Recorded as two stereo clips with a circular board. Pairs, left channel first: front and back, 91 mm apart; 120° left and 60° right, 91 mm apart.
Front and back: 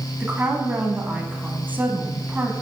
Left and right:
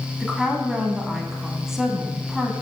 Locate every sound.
0.2 s a woman speaking: 140° right, 1.0 m